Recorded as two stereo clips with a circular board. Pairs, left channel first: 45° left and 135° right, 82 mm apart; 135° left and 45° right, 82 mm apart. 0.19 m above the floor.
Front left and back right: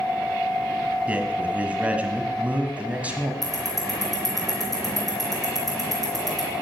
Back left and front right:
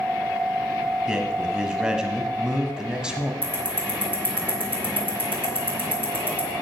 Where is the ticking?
80° left, 3.5 m.